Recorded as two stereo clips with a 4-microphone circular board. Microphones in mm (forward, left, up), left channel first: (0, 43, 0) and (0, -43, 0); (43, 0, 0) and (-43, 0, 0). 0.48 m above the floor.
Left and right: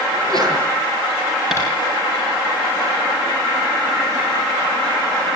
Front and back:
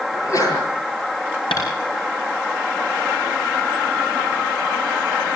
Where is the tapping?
5° right, 7 m.